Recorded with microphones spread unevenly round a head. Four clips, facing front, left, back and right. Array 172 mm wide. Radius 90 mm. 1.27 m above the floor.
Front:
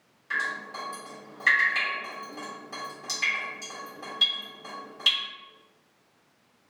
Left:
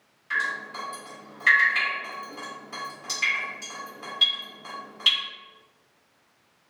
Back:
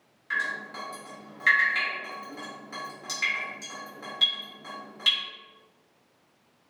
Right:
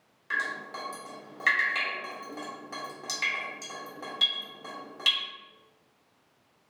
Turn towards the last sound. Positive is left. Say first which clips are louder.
# left 3 dB, even
turn(degrees=-70)